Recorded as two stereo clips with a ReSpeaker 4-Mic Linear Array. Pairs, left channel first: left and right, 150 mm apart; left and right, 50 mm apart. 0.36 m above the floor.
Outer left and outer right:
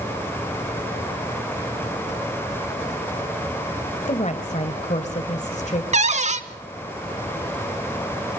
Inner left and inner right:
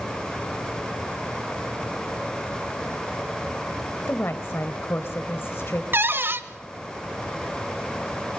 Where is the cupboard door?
50° right (ahead or behind), 0.8 m.